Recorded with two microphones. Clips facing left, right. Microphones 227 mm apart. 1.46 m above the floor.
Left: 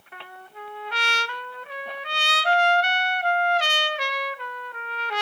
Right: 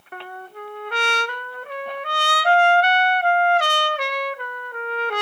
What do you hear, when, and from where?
0.1 s a trumpet: 50° right (ahead or behind), 0.8 m